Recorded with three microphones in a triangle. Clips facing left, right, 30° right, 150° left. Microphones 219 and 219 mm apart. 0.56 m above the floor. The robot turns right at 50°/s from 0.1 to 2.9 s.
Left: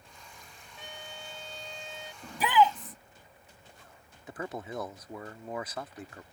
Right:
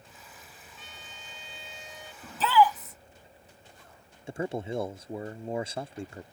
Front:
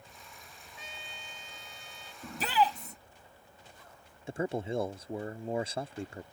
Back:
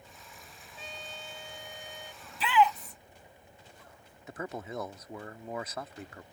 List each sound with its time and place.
0.8 s a trumpet: 90° left; by 2.1 s 160° left
2.2 s a shout: 5° left; by 3.0 s 35° left
4.3 s a man speaking: 60° right